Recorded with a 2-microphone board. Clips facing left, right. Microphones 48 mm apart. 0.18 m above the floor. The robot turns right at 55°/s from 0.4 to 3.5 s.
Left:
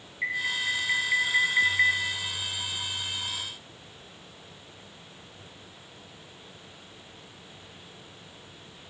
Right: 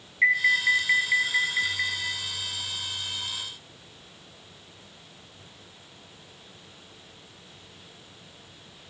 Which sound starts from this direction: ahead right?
An alarm, at 0.2 s.